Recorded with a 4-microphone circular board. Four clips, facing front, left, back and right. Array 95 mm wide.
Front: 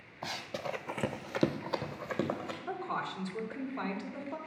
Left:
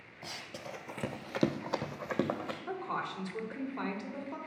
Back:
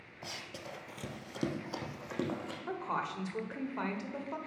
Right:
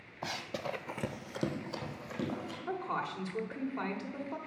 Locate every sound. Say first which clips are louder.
0.2 s running footsteps: right 7 dB, front 8 dB; 65° right, 0.8 m; by 2.6 s 75° left, 1.5 m
2.7 s a woman speaking: right 2 dB, back 1 dB; 175° right, 1.4 m